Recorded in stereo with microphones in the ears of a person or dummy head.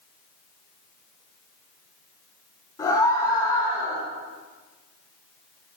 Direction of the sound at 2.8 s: 15° left (ahead or behind).